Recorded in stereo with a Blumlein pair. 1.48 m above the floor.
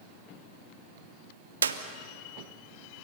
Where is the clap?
70° right, 1.1 m.